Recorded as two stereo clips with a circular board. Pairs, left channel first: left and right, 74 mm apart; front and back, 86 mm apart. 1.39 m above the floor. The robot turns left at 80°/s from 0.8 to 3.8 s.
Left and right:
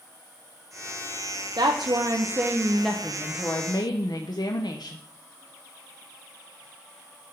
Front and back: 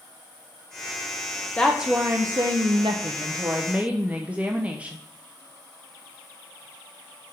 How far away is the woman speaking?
About 0.7 m.